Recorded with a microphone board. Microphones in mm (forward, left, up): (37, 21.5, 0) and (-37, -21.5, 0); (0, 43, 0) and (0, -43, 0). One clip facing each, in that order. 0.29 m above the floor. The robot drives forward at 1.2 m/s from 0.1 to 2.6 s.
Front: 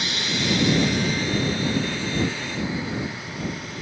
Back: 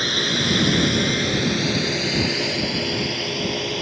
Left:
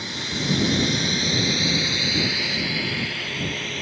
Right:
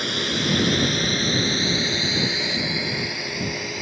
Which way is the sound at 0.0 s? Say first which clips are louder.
Back 3 dB, right 4 dB; 110° right.